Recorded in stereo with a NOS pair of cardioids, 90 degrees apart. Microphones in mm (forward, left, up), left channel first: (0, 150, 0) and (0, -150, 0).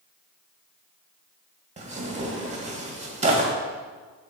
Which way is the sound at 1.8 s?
20° right.